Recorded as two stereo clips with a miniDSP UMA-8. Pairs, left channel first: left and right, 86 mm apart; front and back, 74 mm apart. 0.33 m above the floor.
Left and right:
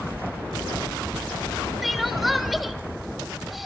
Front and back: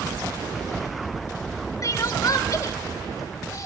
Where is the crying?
Straight ahead, 0.9 m.